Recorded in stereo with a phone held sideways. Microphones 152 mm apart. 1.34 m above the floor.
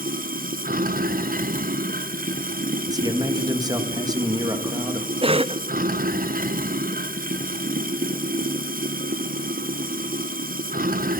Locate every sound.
0.0 s running water: 60° right (ahead or behind), 0.8 m
2.9 s a man speaking: 25° right (ahead or behind), 1.7 m
5.2 s a cough: 35° right (ahead or behind), 0.5 m